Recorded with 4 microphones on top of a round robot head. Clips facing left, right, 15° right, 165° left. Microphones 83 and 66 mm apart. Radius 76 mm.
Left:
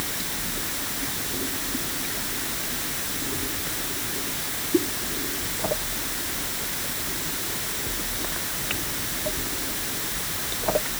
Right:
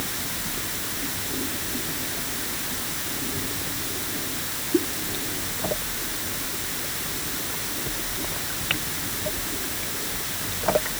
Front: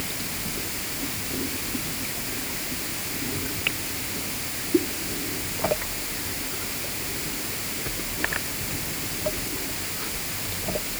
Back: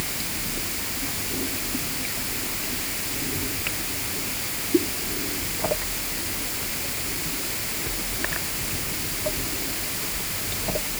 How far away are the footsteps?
No footsteps in this recording.